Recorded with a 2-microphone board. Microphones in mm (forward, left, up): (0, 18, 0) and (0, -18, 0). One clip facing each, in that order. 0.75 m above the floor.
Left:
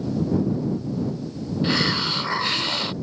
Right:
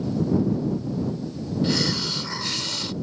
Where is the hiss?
30° left (ahead or behind).